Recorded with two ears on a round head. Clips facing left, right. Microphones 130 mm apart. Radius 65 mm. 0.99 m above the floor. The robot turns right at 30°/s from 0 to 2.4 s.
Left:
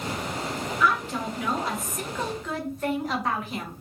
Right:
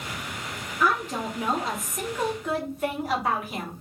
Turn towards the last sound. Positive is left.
turn(degrees=-10)